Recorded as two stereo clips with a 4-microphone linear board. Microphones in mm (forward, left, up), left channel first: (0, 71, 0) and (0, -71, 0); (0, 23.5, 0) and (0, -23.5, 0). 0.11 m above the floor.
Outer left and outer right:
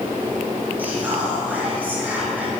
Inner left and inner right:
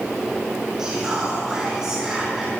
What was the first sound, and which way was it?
Whispering, 15° right (ahead or behind).